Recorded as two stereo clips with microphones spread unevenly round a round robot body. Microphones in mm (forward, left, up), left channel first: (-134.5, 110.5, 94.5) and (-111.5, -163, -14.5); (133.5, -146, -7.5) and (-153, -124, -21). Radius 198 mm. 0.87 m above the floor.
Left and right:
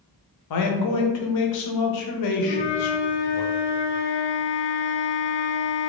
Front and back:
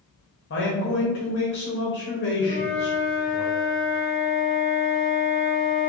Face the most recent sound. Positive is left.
turn(degrees=125)